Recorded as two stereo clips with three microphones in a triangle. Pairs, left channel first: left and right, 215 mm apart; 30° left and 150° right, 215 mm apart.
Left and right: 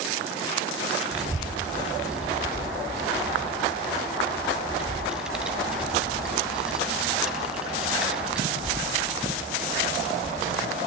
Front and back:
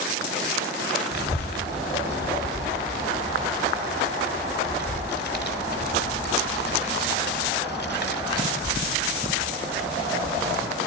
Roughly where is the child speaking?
Ahead.